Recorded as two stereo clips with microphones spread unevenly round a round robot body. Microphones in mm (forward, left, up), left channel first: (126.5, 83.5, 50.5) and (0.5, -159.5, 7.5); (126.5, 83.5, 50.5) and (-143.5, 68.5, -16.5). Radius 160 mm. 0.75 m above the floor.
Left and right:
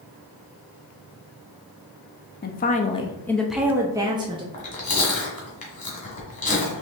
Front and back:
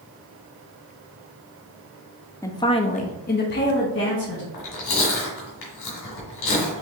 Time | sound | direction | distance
2.4 | a woman speaking | 100° left | 0.6 m
4.5 | chewing | straight ahead | 2.0 m